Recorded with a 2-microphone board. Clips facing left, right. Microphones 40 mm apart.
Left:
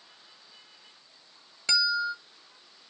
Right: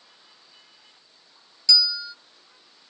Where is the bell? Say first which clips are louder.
Even; 50° left (ahead or behind), 1.2 m.